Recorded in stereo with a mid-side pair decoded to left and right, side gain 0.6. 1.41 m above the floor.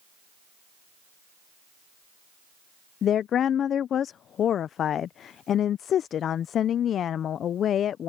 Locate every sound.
3.0 s a woman speaking: 50° left